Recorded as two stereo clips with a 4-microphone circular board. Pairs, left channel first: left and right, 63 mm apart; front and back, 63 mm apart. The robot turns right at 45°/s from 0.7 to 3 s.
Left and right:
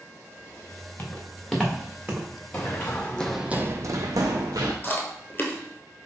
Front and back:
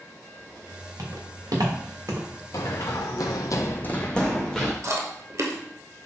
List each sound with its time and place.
1.0 s footsteps: 145° left, 2 m; by 2.3 s 140° right, 1.6 m
2.5 s running footsteps: 25° left, 1.2 m; by 4.7 s 90° right, 1.6 m
4.8 s chewing: 145° left, 1.0 m